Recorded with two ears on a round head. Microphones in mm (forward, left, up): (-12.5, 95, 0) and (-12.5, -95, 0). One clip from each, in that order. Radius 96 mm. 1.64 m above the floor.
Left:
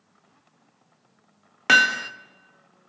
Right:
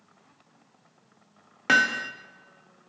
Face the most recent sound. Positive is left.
turn(degrees=30)  # may be behind; listen again after turning